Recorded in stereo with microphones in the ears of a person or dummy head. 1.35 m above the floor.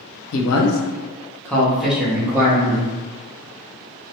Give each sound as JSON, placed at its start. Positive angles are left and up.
{"t": 0.3, "sound": "a man speaking", "side_deg": 75, "distance_m": 0.5}